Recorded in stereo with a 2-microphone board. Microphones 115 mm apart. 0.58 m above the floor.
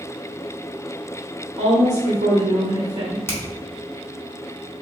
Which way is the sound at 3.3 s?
20° left (ahead or behind).